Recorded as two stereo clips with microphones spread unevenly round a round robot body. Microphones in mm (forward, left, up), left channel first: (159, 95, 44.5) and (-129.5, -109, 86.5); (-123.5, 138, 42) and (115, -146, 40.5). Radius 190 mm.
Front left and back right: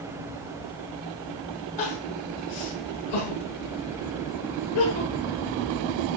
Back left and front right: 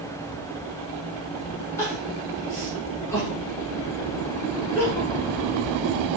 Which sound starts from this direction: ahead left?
Crying, at 1.8 s.